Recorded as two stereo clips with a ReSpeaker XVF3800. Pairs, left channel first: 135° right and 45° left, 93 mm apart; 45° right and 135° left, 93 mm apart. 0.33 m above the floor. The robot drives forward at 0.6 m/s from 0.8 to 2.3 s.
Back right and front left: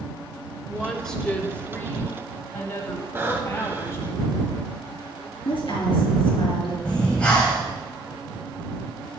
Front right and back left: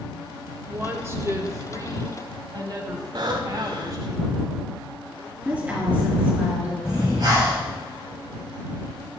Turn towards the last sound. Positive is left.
turn(degrees=150)